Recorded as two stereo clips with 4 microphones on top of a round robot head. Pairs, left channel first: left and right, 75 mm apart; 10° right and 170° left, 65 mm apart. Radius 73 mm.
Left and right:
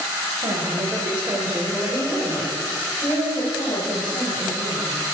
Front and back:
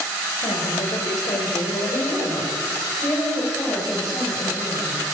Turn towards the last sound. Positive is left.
turn(degrees=60)